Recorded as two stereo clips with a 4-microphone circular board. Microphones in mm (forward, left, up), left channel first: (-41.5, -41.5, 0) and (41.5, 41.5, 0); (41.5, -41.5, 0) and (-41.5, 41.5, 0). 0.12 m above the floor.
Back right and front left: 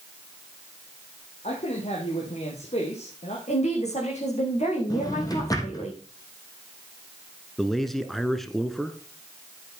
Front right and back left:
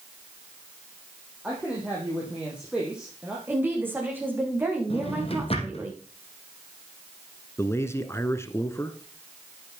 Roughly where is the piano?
No piano in this recording.